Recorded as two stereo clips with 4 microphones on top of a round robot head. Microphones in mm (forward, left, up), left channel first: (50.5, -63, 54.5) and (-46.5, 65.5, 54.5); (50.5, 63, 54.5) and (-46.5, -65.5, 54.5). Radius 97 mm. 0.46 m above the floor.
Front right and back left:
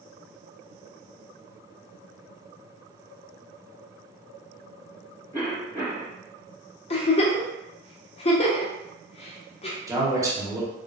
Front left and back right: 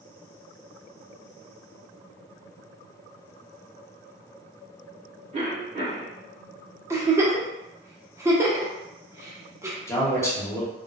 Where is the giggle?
65° right, 0.7 m.